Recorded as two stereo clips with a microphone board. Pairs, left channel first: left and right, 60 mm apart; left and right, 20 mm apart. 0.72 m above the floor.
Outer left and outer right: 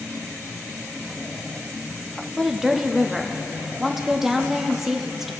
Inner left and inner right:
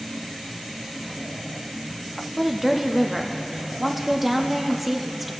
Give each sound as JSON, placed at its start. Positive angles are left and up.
{"t": 2.4, "sound": "a woman speaking", "side_deg": -10, "distance_m": 0.6}